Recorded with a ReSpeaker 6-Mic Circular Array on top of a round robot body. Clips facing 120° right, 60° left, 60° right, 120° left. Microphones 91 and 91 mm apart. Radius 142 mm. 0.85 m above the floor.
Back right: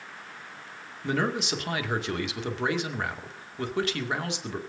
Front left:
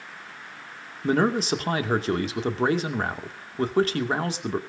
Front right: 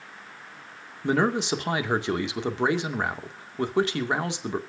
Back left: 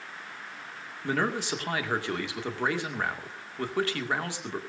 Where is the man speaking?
10° left, 2 m.